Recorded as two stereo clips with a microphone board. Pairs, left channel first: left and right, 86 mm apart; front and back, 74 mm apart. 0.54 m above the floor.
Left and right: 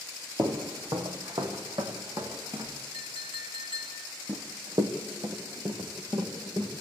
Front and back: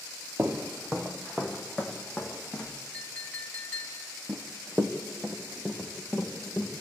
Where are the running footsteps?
120° right, 1.4 m; by 6.7 s 90° right, 3.5 m.